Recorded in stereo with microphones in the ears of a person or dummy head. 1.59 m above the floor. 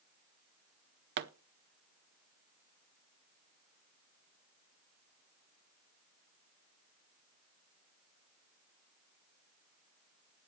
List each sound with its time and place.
1.2 s a pop: 55° right (ahead or behind), 0.6 m